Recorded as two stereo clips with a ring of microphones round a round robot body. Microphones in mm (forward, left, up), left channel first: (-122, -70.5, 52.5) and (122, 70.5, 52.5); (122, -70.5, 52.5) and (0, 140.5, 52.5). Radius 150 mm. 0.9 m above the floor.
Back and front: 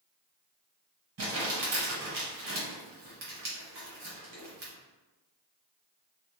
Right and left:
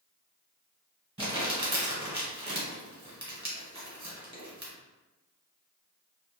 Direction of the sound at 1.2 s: 55° left.